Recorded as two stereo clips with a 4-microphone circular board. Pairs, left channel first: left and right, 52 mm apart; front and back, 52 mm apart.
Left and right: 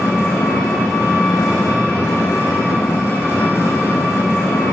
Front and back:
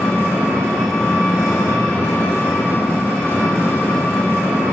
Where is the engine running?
70° left, 1.8 m.